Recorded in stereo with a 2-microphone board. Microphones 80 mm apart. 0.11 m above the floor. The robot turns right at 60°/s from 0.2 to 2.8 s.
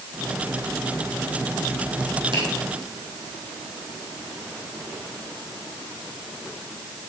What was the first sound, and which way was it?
A finger snap, 70° right (ahead or behind).